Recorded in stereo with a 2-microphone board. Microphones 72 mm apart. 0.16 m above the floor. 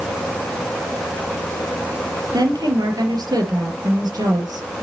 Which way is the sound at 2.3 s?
65° right (ahead or behind).